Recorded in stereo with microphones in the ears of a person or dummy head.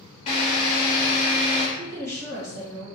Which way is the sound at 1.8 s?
55° right (ahead or behind).